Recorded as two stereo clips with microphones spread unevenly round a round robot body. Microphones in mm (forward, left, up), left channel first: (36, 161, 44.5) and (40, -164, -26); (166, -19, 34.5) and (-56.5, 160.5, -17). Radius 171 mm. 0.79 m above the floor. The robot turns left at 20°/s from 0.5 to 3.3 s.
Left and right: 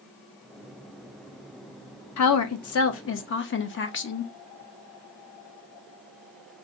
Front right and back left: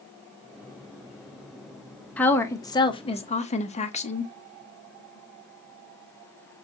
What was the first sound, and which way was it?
A woman speaking, 55° left.